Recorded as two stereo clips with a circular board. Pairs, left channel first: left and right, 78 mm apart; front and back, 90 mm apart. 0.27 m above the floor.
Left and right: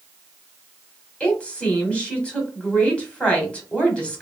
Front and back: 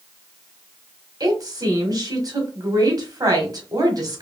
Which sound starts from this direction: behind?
A woman speaking, at 1.2 s.